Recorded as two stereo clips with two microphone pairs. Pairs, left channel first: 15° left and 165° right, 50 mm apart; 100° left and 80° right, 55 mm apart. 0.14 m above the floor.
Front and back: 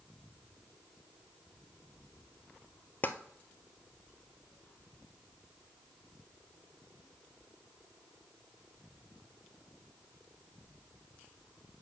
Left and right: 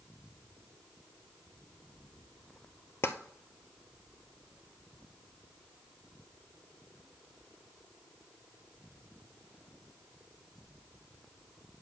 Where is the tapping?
65° left, 0.9 m.